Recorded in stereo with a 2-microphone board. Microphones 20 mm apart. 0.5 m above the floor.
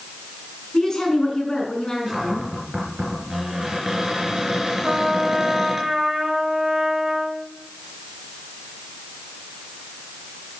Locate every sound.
0.7 s a woman speaking: 30° left (ahead or behind), 5 m
2.1 s a cupboard door: 15° right (ahead or behind), 4 m
4.8 s a trumpet: 25° right (ahead or behind), 1.6 m